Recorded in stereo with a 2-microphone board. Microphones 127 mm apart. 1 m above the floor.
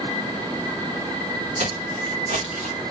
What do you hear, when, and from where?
1.6 s footsteps: 60° right (ahead or behind), 2 m